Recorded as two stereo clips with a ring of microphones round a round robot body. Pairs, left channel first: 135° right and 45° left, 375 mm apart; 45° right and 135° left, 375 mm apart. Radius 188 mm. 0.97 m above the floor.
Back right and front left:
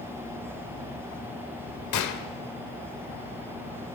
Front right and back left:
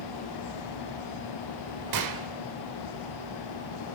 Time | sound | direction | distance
1.9 | a gunshot | 175° left | 2 m